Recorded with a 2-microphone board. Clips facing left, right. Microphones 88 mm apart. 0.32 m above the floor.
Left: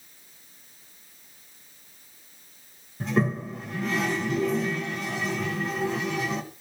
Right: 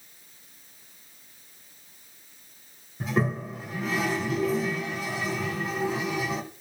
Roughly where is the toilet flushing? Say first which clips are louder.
Left 2 dB; centre.